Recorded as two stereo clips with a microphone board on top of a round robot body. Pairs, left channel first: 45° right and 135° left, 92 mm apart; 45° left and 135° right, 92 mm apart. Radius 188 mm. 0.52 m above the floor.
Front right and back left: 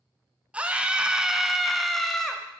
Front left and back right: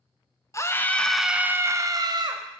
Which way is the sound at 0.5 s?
70° left.